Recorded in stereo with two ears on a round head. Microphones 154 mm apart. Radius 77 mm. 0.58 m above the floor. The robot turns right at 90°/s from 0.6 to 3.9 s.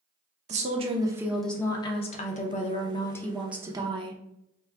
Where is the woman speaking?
75° right, 0.7 m; by 4.2 s 135° right, 0.7 m.